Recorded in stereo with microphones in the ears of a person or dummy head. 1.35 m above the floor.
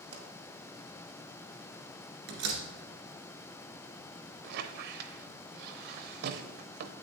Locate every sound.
0.1 s a pop: 60° right (ahead or behind), 1.4 m
2.3 s a door slam: 60° right (ahead or behind), 1.8 m
4.4 s a squeak: 60° right (ahead or behind), 0.6 m